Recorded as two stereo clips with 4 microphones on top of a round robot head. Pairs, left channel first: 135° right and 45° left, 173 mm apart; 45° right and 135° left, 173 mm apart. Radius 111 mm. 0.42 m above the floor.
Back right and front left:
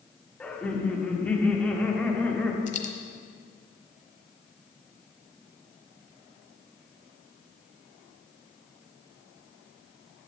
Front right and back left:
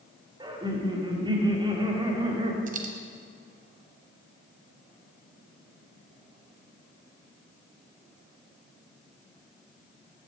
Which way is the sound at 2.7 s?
Straight behind.